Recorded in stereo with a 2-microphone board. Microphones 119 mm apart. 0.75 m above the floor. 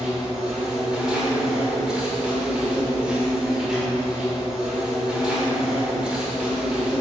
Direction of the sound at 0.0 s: 5° right (ahead or behind).